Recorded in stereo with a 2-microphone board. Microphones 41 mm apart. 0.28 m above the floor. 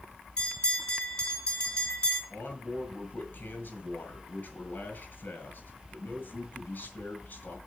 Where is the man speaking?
40° left (ahead or behind), 3 m.